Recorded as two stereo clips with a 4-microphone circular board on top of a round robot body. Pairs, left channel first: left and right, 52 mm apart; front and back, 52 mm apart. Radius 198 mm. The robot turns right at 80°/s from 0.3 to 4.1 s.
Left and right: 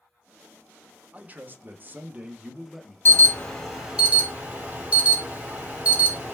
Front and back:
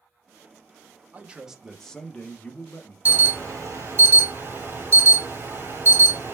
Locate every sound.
1.1 s a man speaking: 135° right, 0.9 m; by 3.0 s 10° left, 0.9 m
3.0 s an alarm: 125° left, 2.5 m; by 6.3 s 150° right, 2.5 m